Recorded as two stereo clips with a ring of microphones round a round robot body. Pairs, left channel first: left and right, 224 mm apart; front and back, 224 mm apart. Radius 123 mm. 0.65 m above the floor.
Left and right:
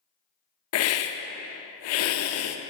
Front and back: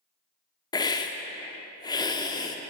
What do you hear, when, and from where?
0.7 s a hiss: 75° left, 0.5 m